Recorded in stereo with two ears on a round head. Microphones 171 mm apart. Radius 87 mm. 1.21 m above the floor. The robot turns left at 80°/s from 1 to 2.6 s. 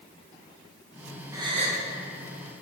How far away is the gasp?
About 0.9 m.